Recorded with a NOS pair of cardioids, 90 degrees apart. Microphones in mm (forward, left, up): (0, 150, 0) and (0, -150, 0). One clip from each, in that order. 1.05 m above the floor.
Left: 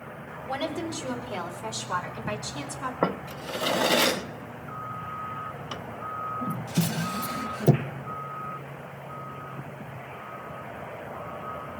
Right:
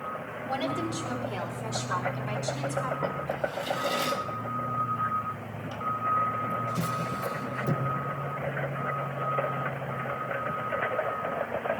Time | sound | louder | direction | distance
0.5 | a woman speaking | even | 10° left | 3.5 m
3.0 | a drawer | left 1 dB | 50° left | 0.7 m